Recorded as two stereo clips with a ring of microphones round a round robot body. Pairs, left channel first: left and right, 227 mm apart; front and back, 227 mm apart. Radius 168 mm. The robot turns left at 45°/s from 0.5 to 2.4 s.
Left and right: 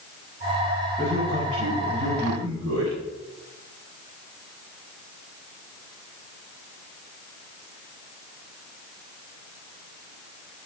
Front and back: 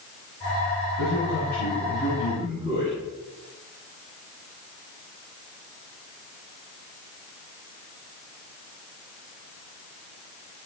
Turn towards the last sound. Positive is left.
turn(degrees=-75)